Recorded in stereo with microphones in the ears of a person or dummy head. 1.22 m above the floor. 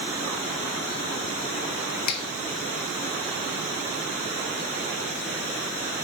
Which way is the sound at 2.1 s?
55° left (ahead or behind).